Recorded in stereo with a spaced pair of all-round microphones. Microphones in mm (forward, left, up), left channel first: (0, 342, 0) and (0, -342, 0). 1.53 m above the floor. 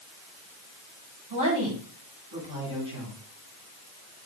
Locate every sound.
1.3 s a woman speaking: 45° right (ahead or behind), 6.5 m